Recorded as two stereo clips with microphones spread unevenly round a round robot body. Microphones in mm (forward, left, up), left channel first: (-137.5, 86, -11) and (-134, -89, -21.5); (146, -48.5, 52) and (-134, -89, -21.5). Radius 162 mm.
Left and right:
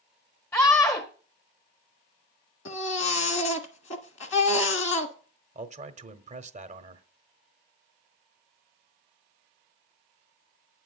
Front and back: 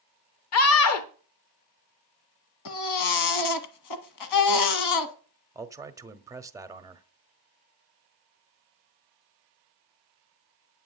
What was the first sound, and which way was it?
A scream, 15° left.